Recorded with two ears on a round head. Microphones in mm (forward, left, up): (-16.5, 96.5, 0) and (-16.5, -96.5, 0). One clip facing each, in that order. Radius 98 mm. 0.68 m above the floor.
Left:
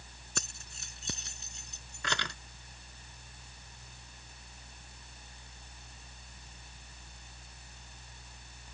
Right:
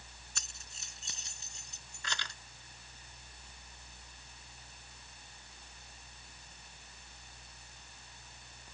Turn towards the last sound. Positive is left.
turn(degrees=50)  # may be behind; listen again after turning